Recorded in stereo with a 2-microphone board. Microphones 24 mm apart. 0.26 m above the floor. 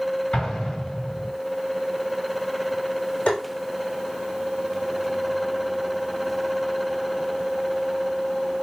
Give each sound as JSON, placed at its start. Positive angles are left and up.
{"t": 0.3, "sound": "an explosion", "side_deg": 60, "distance_m": 2.0}
{"t": 3.3, "sound": "tapping", "side_deg": 70, "distance_m": 2.5}